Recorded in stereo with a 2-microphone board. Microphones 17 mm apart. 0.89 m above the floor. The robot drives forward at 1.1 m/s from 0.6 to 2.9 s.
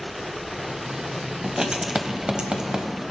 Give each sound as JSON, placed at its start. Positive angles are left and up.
{"t": 1.4, "sound": "writing", "side_deg": -45, "distance_m": 1.4}